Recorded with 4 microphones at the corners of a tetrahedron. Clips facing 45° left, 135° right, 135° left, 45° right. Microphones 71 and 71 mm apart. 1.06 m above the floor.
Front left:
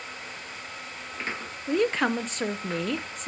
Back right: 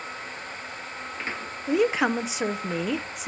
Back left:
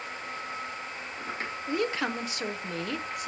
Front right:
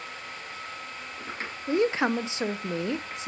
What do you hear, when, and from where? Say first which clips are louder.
1.7 s a woman speaking: back right 2 dB, front right 6 dB; 60° right, 0.5 m